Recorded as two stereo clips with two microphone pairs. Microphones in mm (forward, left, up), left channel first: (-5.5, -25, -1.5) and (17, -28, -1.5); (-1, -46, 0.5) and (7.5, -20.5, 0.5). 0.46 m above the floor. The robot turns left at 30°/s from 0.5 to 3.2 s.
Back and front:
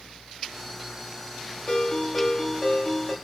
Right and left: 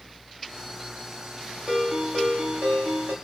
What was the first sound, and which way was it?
A ringtone, 125° left.